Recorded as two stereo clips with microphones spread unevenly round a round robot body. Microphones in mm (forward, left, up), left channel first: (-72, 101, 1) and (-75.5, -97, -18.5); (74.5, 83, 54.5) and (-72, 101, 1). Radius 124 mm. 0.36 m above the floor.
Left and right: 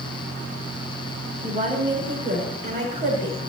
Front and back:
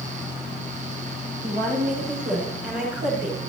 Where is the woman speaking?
135° right, 4 m; by 3.4 s 125° right, 5.5 m.